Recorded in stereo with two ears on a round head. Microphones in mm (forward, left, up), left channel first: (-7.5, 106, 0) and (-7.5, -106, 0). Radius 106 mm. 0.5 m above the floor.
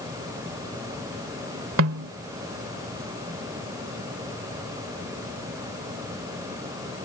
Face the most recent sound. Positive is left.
turn(degrees=-60)  # may be behind; listen again after turning